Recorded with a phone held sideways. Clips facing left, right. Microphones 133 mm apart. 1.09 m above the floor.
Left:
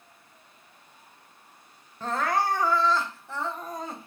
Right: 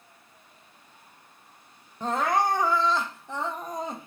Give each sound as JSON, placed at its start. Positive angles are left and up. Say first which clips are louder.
{"t": 2.0, "sound": "crying", "louder": "right 2 dB", "side_deg": -15, "distance_m": 0.5}